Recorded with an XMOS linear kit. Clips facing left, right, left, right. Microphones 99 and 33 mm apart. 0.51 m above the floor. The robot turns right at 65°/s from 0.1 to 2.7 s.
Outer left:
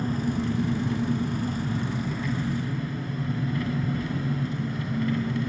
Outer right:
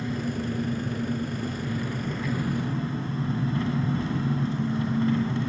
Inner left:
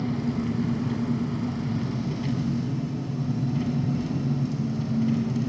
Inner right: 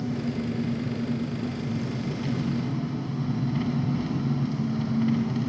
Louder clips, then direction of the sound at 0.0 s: Outer left 2 dB, inner left 2 dB; 40° left.